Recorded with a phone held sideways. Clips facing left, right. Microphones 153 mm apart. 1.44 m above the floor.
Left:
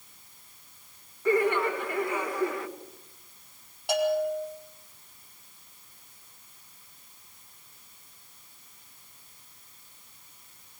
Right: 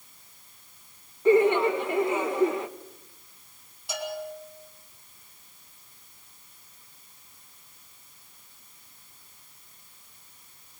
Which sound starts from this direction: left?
A bell, at 3.9 s.